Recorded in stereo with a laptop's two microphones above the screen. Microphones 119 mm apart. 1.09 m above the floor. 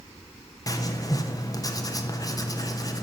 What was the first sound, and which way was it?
Writing, 30° left (ahead or behind).